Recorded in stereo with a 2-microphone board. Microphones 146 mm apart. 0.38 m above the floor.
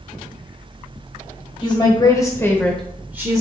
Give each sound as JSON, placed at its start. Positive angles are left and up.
{"t": 1.6, "sound": "a woman speaking", "side_deg": 35, "distance_m": 1.4}